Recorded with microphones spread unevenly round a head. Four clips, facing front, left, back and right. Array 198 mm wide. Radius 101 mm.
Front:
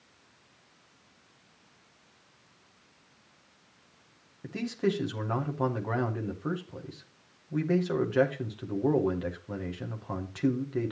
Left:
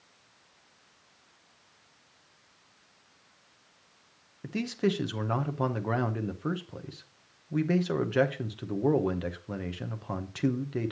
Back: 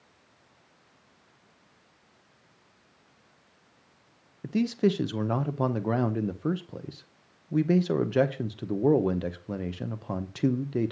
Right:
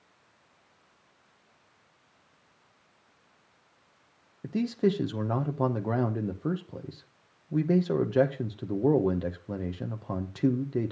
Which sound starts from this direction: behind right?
A man speaking, at 4.4 s.